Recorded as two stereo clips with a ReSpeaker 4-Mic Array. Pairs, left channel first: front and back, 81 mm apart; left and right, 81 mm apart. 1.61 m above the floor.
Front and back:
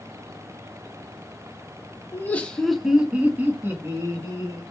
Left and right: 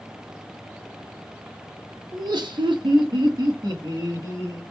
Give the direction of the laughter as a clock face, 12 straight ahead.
2 o'clock.